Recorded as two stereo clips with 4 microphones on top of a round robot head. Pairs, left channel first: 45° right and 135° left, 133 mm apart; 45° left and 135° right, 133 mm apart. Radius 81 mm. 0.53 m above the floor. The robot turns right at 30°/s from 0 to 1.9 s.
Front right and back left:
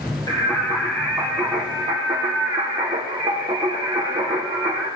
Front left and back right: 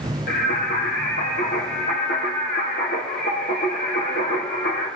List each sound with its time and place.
0.3 s singing: 25° left, 3 m; by 4.9 s 70° left, 3 m